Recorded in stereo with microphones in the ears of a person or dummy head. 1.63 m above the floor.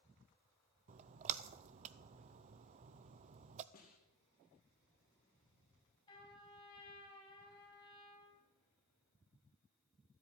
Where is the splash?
40° right (ahead or behind), 0.6 m.